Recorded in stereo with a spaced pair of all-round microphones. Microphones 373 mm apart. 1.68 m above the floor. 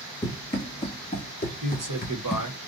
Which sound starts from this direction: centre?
Running footsteps, at 0.2 s.